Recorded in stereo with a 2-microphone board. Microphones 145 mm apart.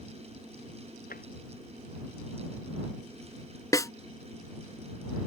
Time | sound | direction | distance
1.1 | tapping | 80° left | ?
3.7 | a snare drum | 20° left (ahead or behind) | ?